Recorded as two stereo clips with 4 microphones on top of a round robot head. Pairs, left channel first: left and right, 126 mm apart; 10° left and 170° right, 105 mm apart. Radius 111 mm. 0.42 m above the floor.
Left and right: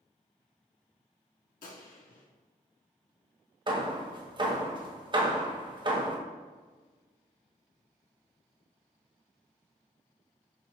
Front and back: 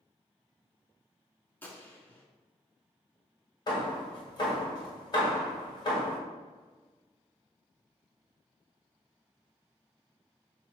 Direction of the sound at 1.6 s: 80° left.